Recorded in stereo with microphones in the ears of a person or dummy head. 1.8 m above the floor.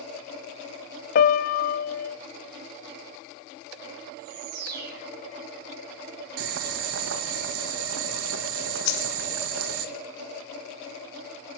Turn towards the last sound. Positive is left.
turn(degrees=65)  # may be behind; listen again after turning